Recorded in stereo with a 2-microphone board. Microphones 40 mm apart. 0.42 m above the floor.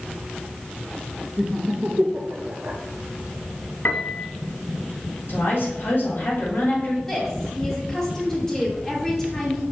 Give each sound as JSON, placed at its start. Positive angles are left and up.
{"t": 1.4, "sound": "laughter", "side_deg": -15, "distance_m": 0.7}
{"t": 3.9, "sound": "a piano", "side_deg": 50, "distance_m": 0.7}
{"t": 5.3, "sound": "a woman speaking", "side_deg": 65, "distance_m": 2.5}
{"t": 7.1, "sound": "a woman speaking", "side_deg": 15, "distance_m": 3.0}